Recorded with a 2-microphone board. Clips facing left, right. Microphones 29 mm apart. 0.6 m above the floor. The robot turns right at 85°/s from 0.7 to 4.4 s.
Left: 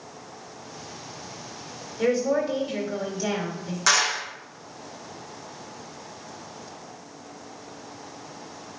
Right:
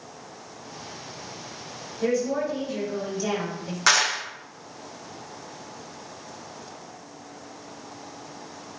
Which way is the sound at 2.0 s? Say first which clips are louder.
Left 2 dB; 60° left.